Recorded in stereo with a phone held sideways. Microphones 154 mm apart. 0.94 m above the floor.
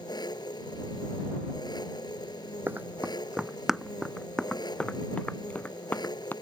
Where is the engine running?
25° left (ahead or behind).